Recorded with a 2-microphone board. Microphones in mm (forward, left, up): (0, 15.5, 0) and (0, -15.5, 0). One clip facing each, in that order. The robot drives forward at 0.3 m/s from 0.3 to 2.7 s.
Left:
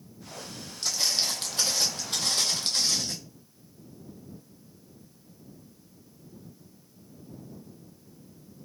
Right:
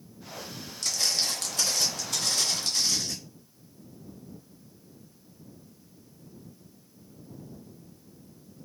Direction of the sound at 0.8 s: 25° left (ahead or behind).